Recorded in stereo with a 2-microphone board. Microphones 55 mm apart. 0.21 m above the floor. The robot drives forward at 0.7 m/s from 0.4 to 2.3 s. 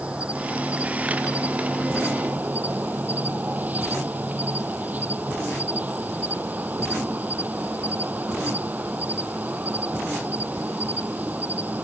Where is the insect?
20° right (ahead or behind); by 11.9 s 30° right (ahead or behind).